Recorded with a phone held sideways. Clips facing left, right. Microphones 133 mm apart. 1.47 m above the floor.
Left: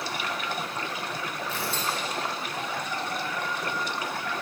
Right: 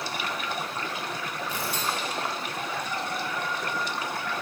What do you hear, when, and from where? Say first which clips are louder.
1.5 s tearing paper: even; 15° right (ahead or behind), 2.5 m